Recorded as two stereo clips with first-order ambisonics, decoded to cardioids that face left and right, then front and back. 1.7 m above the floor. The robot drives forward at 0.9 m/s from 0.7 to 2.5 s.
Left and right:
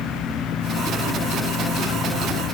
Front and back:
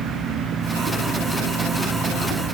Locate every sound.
Only background noise.